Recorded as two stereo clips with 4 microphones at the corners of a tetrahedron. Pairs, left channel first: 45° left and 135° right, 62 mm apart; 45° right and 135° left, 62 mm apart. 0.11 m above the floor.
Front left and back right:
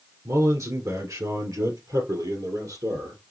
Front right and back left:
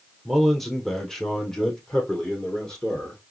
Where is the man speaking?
135° right, 1.5 m; by 3.2 s 125° right, 3.5 m.